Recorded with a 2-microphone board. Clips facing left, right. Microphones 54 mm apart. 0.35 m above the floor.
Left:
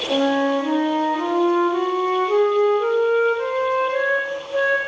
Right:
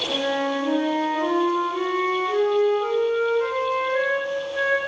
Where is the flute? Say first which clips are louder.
Left 6 dB; 80° left, 9 m.